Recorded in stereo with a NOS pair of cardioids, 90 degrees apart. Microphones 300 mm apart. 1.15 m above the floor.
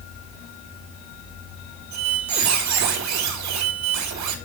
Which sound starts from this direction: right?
A squeak, at 1.9 s.